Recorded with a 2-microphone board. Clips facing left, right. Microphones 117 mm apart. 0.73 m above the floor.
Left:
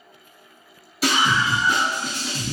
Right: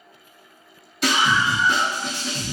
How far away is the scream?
About 1.5 m.